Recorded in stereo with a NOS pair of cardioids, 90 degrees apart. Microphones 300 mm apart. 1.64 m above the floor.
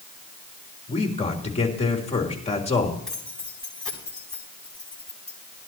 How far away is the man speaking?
About 3.5 m.